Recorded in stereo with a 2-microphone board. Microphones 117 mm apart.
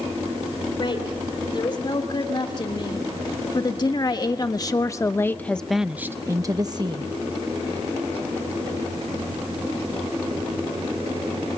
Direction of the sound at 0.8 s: 45° left (ahead or behind).